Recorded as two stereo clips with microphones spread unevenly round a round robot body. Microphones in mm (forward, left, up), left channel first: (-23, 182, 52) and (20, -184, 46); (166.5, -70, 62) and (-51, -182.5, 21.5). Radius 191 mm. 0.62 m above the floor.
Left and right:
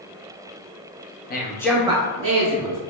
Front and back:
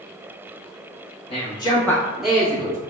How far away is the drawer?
No drawer in this recording.